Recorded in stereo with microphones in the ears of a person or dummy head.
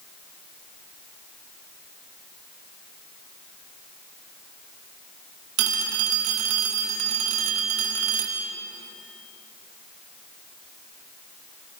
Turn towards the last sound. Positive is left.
turn(degrees=-65)  # may be behind; listen again after turning